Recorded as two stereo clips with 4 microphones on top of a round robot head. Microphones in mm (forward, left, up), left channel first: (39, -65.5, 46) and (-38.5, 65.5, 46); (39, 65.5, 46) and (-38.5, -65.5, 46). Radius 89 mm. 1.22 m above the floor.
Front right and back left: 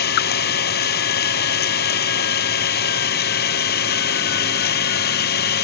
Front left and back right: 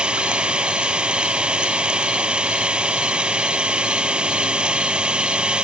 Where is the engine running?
35° right.